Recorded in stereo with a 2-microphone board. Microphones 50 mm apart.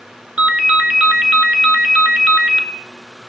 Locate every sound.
0.4 s a ringtone: 20° right (ahead or behind), 1.1 m